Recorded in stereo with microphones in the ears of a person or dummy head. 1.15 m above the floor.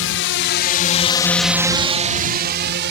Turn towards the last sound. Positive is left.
turn(degrees=-55)  # may be behind; listen again after turning